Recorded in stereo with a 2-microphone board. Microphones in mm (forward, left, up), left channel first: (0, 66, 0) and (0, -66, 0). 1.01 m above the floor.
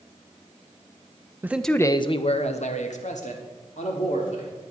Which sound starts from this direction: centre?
A man speaking, at 1.4 s.